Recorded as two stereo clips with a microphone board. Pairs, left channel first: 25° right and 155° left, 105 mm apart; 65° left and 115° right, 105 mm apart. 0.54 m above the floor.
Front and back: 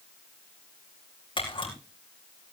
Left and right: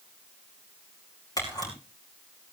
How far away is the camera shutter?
About 5.5 m.